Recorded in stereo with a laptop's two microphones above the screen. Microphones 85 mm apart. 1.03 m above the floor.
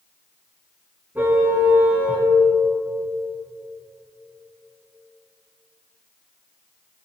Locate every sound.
1.1 s a car horn: 25° right (ahead or behind), 4 m; by 2.3 s 15° right (ahead or behind), 3.5 m